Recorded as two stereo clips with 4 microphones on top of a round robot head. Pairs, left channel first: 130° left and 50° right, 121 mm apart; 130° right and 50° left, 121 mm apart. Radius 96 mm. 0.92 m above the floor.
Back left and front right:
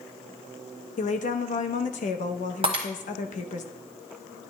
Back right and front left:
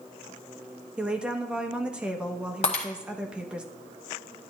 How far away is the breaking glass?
About 1.2 m.